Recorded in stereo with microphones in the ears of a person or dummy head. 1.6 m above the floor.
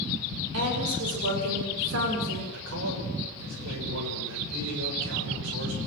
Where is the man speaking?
75° right (ahead or behind), 6 m.